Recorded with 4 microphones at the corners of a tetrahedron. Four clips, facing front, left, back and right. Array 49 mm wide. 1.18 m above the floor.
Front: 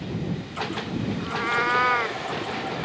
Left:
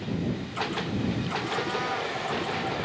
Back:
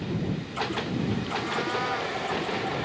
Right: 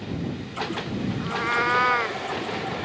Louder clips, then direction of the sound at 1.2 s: Right 6 dB, front 5 dB; 50° right.